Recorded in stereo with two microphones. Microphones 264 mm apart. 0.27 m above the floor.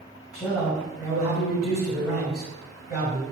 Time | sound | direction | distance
0.3 | a man speaking | 10° right (ahead or behind) | 1.8 m